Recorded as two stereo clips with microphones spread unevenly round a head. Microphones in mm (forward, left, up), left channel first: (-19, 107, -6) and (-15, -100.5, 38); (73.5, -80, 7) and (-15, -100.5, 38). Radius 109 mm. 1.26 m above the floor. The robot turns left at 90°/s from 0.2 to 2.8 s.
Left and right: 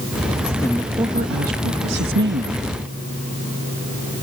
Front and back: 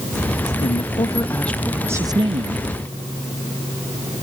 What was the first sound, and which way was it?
A woman speaking, 20° left.